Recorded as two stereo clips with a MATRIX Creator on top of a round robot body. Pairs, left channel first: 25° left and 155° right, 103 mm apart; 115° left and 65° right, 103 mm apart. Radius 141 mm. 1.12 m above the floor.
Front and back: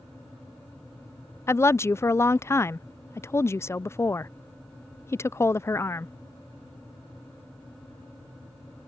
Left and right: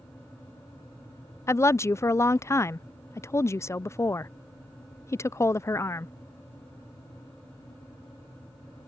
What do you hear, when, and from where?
1.5 s a woman speaking: 70° left